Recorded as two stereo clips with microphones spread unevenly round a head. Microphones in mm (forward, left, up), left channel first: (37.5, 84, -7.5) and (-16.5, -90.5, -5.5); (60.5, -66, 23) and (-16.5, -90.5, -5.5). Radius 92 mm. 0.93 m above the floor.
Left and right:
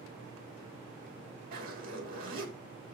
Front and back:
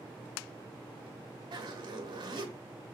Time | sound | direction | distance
1.5 | a zipper | 155° right | 2 m